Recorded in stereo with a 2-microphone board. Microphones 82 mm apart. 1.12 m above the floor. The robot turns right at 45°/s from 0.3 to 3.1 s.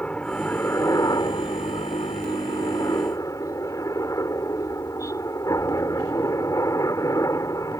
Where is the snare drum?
I don't hear a snare drum.